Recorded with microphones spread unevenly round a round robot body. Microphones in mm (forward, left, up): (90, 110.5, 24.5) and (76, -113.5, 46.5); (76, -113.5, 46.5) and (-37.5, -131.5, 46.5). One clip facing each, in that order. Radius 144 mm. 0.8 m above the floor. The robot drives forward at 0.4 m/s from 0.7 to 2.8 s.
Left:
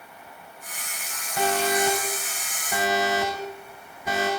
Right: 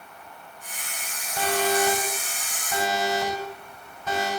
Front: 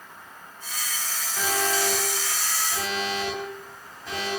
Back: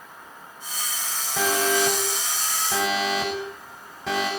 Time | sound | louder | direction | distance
1.4 | an alarm | even, back 4 dB | 165° left | 8 m